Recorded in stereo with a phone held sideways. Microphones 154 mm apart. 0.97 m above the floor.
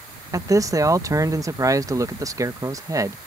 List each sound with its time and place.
0.3 s a man speaking: 20° right (ahead or behind)